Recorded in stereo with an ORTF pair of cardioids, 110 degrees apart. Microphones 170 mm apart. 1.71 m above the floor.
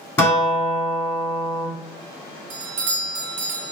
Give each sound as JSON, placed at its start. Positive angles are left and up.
{"t": 0.2, "sound": "a guitar", "azimuth_deg": 15, "distance_m": 1.0}
{"t": 2.5, "sound": "a doorbell", "azimuth_deg": -50, "distance_m": 0.5}